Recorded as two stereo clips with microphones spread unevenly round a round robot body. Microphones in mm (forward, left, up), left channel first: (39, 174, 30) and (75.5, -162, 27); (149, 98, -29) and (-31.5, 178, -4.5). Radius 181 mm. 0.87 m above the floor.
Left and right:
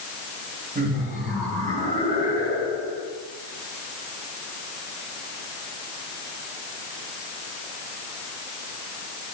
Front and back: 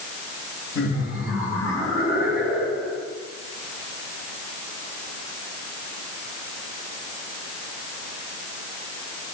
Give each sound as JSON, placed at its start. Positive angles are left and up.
{"t": 0.8, "sound": "laughter", "azimuth_deg": -20, "distance_m": 6.0}